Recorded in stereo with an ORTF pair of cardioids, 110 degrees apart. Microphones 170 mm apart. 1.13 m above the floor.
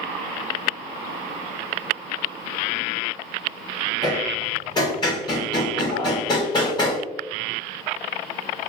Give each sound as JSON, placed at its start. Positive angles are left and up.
{"t": 4.0, "sound": "hammering", "azimuth_deg": 25, "distance_m": 1.7}